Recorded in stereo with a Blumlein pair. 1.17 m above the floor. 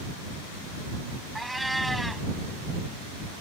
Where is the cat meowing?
5° right.